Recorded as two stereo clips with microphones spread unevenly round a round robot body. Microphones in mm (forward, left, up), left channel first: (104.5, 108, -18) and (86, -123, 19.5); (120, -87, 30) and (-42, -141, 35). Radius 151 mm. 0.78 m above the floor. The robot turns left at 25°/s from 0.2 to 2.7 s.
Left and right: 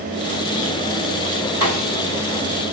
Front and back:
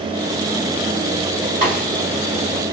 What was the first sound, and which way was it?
A snare drum, 140° left.